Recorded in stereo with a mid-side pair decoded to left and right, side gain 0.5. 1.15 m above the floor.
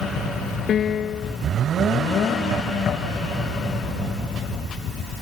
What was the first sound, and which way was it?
A piano, 55° left.